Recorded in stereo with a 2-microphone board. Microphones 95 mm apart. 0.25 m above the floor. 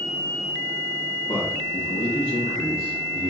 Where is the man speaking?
55° left (ahead or behind), 3.5 m; by 3.3 s 70° left (ahead or behind), 3 m.